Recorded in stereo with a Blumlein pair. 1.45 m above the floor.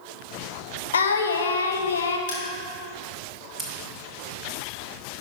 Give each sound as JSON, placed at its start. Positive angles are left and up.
{"t": 0.9, "sound": "singing", "azimuth_deg": 70, "distance_m": 0.8}
{"t": 2.3, "sound": "crushing", "azimuth_deg": 60, "distance_m": 2.5}
{"t": 3.6, "sound": "scissors", "azimuth_deg": -15, "distance_m": 1.4}